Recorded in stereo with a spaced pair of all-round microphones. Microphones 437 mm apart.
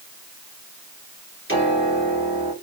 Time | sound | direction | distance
1.5 | a piano | 25° left (ahead or behind) | 1.9 m